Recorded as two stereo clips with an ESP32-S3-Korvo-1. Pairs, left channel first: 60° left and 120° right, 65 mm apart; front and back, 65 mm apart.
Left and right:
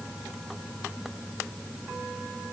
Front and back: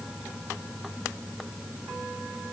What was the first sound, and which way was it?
Only background noise.